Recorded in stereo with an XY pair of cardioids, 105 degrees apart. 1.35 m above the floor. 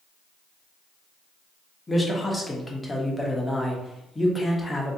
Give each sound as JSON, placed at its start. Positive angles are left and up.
{"t": 1.9, "sound": "a man speaking", "azimuth_deg": 15, "distance_m": 1.2}